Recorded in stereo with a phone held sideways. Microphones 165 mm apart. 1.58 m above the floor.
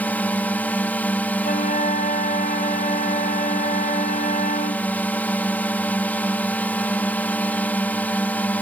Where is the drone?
10° left (ahead or behind).